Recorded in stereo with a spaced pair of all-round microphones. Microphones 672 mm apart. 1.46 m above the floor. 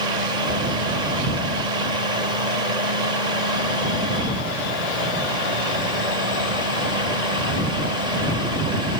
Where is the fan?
85° right.